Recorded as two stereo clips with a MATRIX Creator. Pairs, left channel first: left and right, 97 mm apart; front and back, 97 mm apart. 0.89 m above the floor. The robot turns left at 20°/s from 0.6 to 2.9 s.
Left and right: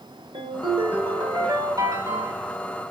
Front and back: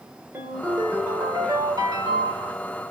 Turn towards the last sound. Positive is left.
turn(degrees=-160)